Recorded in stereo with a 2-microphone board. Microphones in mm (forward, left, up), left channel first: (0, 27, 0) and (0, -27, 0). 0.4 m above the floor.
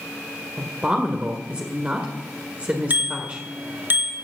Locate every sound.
0.6 s a woman speaking: 25° right (ahead or behind), 1.7 m
2.9 s a bicycle bell: 45° right (ahead or behind), 3.5 m